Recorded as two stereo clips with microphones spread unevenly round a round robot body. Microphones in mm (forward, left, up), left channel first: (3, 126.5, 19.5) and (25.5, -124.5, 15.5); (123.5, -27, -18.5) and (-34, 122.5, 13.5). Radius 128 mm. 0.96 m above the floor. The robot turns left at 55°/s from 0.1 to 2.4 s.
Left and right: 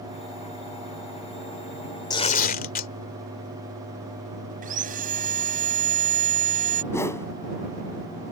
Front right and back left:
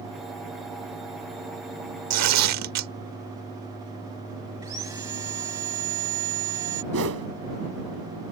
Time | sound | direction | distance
2.1 | tearing paper | 170° left | ?
4.6 | sawing | 145° right | ?
6.9 | a whoosh | 175° left | ?